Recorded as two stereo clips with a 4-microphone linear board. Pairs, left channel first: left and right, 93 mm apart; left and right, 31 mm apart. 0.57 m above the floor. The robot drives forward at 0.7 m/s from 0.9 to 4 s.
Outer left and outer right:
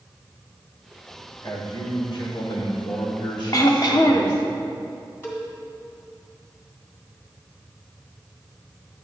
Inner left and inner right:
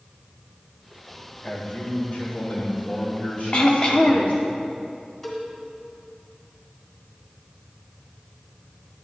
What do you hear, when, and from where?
1.4 s a man speaking: 55° left (ahead or behind), 1.8 m; by 4.5 s 50° left (ahead or behind), 1.9 m
3.5 s throat clearing: 40° left (ahead or behind), 0.8 m; by 4.4 s 50° left (ahead or behind), 0.7 m
5.2 s a cowbell: 25° left (ahead or behind), 2.5 m